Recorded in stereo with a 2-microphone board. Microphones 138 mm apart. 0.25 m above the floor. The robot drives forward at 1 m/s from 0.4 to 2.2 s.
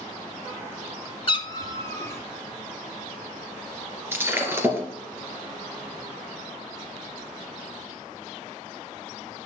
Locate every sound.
1.3 s a cat meowing: 40° left (ahead or behind), 0.7 m; by 2.2 s 15° left (ahead or behind), 1.6 m
4.1 s breaking glass: 15° right (ahead or behind), 2 m